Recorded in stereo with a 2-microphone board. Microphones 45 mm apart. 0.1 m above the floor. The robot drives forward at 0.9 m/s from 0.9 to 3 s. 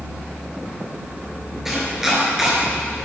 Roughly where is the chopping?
Centre.